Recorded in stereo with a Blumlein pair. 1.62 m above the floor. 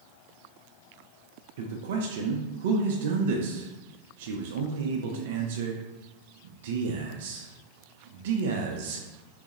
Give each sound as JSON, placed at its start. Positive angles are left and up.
{"t": 1.6, "sound": "a man speaking", "azimuth_deg": -55, "distance_m": 0.5}